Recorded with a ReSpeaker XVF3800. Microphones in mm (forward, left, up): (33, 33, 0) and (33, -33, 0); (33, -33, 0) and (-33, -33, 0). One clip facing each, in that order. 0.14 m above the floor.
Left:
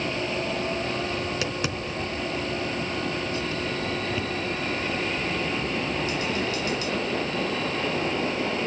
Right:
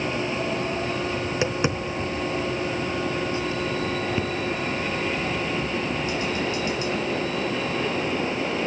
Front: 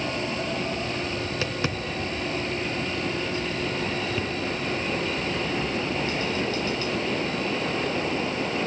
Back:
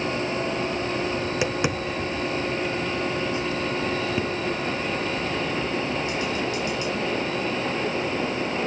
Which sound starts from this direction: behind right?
Tapping, at 1.2 s.